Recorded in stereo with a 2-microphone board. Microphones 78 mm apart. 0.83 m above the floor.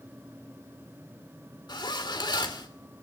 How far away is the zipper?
About 2.5 m.